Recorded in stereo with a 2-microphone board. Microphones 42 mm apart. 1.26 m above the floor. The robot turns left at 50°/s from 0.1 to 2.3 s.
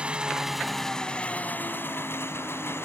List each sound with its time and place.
0.0 s an engine running: 155° right; by 2.9 s 95° left